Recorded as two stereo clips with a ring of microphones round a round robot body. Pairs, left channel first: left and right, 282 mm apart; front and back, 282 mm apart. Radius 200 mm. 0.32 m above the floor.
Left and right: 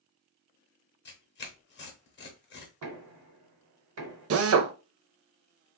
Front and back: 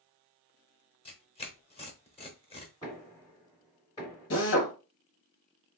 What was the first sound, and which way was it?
Tearing paper, 60° left.